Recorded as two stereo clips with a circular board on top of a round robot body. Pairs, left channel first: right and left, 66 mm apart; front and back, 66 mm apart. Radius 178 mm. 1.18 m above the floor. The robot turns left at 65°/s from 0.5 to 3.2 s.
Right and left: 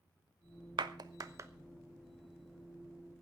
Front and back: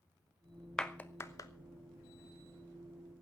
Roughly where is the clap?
Left.